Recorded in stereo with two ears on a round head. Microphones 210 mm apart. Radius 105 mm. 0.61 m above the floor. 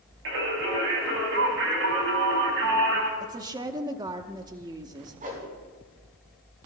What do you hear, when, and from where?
0.2 s singing: 60° right (ahead or behind), 4 m
3.2 s a woman speaking: 20° right (ahead or behind), 0.8 m
5.2 s a whoosh: 35° right (ahead or behind), 4 m